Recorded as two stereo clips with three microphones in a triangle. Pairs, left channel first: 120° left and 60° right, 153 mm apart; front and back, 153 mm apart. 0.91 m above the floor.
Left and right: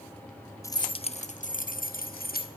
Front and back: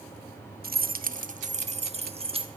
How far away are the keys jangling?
About 0.5 m.